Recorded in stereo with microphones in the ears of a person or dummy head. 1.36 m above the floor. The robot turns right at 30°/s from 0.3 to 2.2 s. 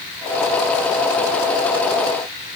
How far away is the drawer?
I don't hear a drawer.